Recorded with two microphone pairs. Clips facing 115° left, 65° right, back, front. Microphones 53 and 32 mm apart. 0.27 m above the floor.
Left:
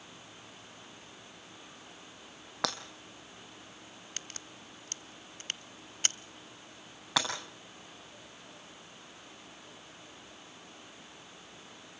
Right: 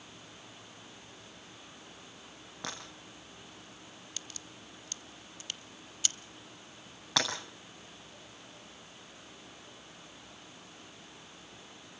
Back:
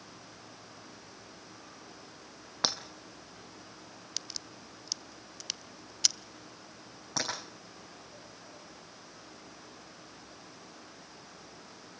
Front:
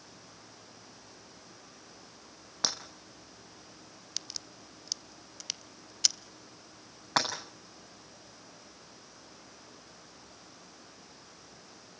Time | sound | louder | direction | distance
2.6 | breaking glass | left 8 dB, back 2 dB | 110° left | 1.8 m
4.2 | a crack | left 3 dB, even | 95° left | 0.5 m
7.2 | breaking glass | even, front 7 dB | 35° left | 8 m